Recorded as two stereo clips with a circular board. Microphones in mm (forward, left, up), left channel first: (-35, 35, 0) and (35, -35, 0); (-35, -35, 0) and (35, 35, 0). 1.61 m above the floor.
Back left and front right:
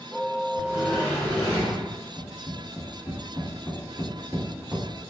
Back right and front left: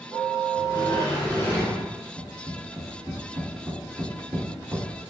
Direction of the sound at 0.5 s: 175° left.